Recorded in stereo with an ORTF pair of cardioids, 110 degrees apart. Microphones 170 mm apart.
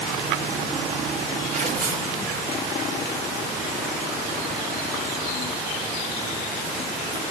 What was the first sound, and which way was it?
Tearing paper, 50° right.